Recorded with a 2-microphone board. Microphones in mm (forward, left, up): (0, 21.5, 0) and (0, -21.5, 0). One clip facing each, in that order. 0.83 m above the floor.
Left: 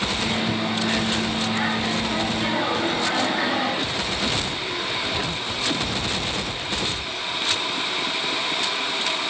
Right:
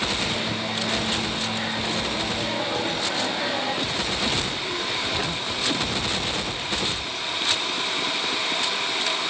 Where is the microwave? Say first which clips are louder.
Left 3 dB; 55° left (ahead or behind), 6 m.